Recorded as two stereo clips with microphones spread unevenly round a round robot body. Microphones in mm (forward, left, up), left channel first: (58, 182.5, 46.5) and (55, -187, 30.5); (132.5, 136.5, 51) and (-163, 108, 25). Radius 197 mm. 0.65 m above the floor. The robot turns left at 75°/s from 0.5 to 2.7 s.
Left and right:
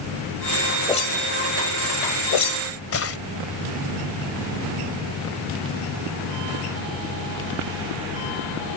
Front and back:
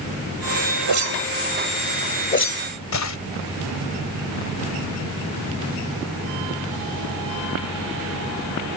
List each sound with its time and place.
0.9 s a whoosh: 170° left; by 3.2 s 35° left